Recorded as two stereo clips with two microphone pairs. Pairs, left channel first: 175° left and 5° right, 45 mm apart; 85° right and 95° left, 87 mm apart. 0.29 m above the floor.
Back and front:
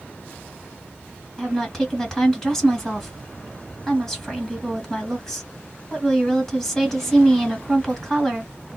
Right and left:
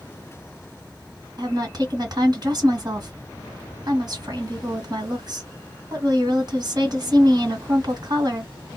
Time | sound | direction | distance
1.4 | a woman speaking | 100° left | 1.7 m